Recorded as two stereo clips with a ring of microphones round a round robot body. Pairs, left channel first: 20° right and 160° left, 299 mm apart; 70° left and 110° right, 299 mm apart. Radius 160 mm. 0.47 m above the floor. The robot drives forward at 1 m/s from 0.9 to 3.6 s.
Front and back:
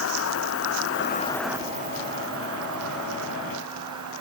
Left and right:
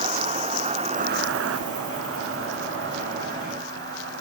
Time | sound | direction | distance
0.0 | an insect | 50° right | 0.8 m